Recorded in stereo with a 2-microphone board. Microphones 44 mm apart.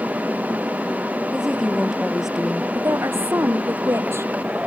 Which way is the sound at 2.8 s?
85° right.